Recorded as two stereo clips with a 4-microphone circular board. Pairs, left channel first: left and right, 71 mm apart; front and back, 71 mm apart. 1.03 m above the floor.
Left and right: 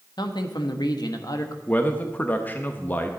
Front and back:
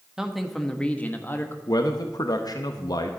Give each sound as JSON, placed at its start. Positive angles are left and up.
{"t": 0.2, "sound": "a man speaking", "azimuth_deg": 100, "distance_m": 1.2}
{"t": 1.7, "sound": "a man speaking", "azimuth_deg": 25, "distance_m": 0.8}